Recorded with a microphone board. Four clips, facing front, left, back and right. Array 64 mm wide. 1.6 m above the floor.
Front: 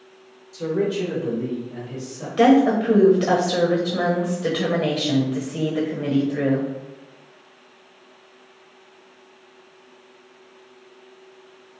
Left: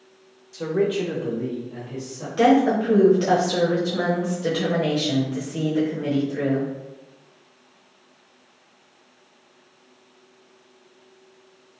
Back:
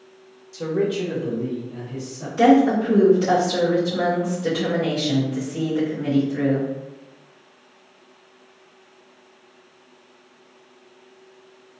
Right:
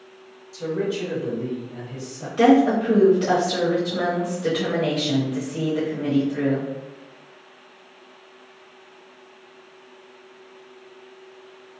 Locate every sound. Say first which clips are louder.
0.5 s a man speaking: left 3 dB, even; 120° left, 0.9 m; by 2.3 s 45° left, 1.8 m
2.4 s a woman speaking: right 1 dB, even; 15° left, 0.9 m